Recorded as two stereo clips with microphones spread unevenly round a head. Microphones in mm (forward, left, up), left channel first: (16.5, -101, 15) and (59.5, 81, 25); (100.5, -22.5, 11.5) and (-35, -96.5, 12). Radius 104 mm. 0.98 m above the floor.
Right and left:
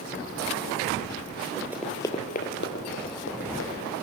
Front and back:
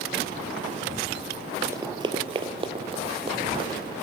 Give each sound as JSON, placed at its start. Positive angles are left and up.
{"t": 1.7, "sound": "running footsteps", "azimuth_deg": 145, "distance_m": 1.1}